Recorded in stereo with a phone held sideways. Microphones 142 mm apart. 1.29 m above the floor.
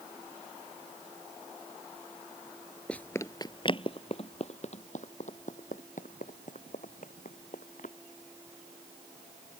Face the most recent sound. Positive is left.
turn(degrees=65)  # may be behind; listen again after turning